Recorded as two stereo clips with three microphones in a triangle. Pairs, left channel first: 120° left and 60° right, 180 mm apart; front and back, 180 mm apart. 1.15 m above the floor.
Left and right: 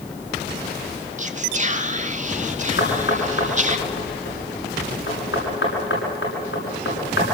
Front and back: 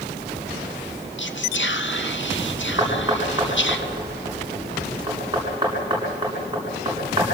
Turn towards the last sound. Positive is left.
turn(degrees=115)